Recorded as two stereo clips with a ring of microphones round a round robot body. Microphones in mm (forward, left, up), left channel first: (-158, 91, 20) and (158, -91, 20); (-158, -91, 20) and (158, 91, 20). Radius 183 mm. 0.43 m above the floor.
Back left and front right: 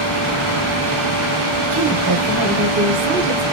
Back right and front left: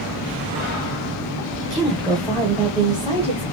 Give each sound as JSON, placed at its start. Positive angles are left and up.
{"t": 1.6, "sound": "a woman speaking", "azimuth_deg": -60, "distance_m": 1.1}